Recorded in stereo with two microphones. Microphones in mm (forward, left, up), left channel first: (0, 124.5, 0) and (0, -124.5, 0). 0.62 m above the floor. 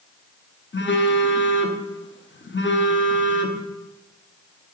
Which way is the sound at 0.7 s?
50° left (ahead or behind).